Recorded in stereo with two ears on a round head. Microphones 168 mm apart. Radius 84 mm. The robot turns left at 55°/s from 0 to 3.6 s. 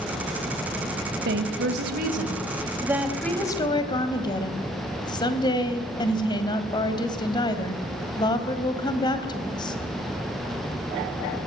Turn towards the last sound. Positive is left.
turn(degrees=155)